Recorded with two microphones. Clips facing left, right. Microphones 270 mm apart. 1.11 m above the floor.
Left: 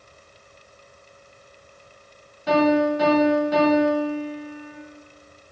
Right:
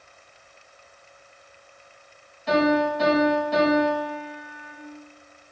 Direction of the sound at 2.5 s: 80° left.